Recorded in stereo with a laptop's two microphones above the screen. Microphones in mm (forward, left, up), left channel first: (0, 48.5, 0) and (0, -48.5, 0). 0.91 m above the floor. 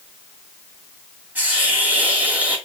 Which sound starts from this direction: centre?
A hiss, at 1.4 s.